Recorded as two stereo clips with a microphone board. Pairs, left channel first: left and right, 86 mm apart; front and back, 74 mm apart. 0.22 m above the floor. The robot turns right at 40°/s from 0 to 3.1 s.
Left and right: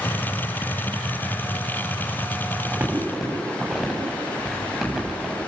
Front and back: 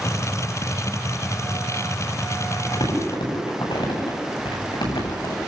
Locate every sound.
2.6 s crumpling: 25° right, 9 m; by 5.3 s 5° right, 9 m